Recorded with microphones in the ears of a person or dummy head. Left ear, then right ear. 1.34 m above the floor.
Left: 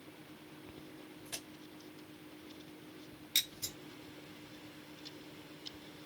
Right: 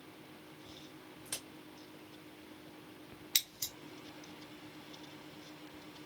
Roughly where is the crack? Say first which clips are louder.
Right 1 dB; centre.